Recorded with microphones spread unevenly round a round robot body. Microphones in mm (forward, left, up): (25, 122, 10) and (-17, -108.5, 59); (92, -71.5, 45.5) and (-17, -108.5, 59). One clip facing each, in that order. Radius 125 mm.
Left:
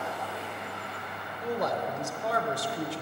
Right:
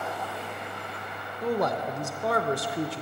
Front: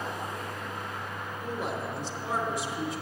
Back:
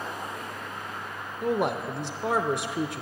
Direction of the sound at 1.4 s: 140° right.